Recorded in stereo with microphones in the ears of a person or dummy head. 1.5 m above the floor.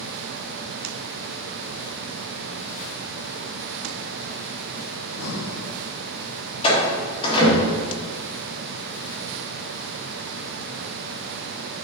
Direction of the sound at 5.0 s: 70° left (ahead or behind).